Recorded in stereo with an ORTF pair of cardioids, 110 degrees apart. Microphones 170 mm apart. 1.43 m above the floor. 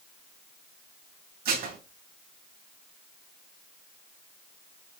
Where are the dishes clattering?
70° right, 1.8 m.